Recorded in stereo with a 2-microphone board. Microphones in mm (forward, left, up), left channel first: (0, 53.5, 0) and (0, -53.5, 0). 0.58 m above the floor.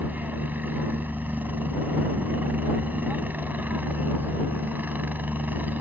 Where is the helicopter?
15° right (ahead or behind).